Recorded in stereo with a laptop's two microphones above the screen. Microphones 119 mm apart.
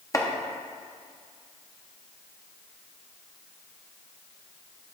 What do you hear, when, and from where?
0.1 s chopping: 25° left (ahead or behind), 0.7 m